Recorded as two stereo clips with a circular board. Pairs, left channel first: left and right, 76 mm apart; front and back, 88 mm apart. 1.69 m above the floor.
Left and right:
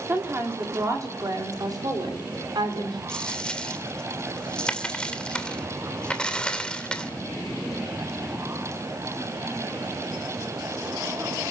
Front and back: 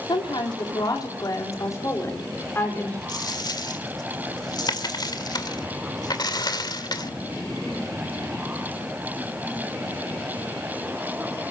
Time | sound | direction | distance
0.1 | a woman speaking | 25° right | 5 m
3.1 | a dropped coin | 15° left | 2 m